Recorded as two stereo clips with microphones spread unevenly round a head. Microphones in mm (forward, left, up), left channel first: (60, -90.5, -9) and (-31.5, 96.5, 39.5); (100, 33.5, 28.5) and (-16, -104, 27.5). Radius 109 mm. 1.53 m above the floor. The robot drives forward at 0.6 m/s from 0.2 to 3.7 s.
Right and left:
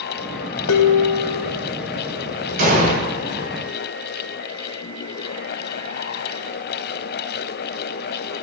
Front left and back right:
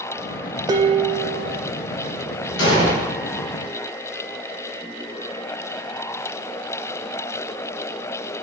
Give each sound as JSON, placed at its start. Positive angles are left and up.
{"t": 0.7, "sound": "dishes clattering", "azimuth_deg": -65, "distance_m": 0.7}
{"t": 2.6, "sound": "an explosion", "azimuth_deg": 80, "distance_m": 3.0}